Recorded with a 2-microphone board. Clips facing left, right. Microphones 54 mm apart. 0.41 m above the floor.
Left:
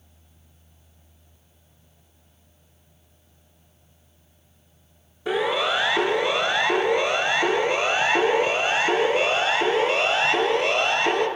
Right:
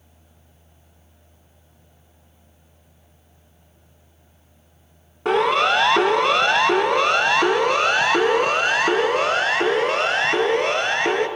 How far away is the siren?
About 3.5 m.